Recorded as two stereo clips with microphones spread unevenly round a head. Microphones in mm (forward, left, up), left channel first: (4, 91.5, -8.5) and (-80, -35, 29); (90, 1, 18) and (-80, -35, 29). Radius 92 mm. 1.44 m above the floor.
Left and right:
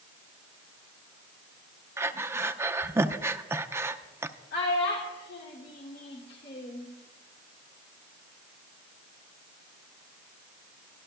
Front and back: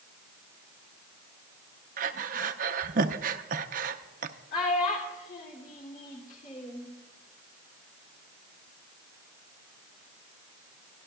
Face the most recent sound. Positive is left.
turn(degrees=60)